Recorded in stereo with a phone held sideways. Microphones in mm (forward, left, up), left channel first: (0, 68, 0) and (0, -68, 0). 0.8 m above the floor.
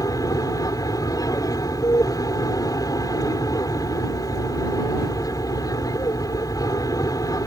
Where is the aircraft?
25° left (ahead or behind).